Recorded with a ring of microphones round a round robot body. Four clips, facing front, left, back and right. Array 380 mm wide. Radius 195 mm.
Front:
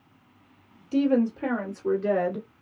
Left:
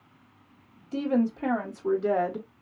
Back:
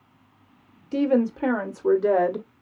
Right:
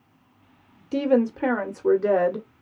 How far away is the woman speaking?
About 1.6 m.